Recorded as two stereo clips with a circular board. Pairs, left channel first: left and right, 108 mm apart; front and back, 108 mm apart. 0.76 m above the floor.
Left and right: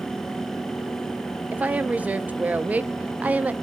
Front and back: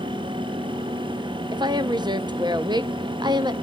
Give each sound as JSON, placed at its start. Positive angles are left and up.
{"t": 1.5, "sound": "a woman speaking", "azimuth_deg": -160, "distance_m": 0.7}